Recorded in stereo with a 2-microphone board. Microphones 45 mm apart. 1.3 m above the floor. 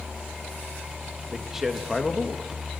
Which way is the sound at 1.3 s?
15° right (ahead or behind).